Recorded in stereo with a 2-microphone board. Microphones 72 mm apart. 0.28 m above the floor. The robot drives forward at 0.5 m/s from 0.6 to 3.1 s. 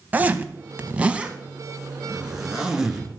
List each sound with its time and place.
0.1 s a zipper: 25° right (ahead or behind), 0.7 m; by 3.1 s 10° right (ahead or behind), 1.9 m